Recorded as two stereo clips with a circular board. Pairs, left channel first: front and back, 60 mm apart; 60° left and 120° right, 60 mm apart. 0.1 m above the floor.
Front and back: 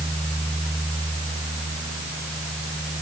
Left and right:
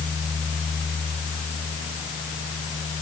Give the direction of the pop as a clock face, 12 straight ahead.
I don't hear a pop.